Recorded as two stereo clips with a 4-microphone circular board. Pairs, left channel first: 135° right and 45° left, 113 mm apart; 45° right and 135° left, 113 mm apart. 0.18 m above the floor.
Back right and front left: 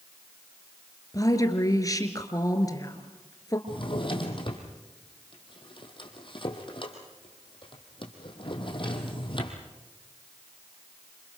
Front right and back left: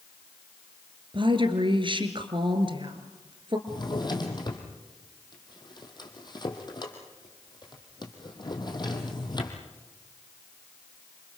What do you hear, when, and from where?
1.1 s a woman speaking: 170° left, 2.5 m
3.7 s a drawer: 95° right, 3.5 m